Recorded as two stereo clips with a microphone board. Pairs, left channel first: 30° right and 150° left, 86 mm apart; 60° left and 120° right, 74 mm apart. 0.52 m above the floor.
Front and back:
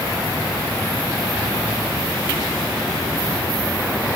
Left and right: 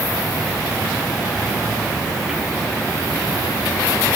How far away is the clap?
I don't hear a clap.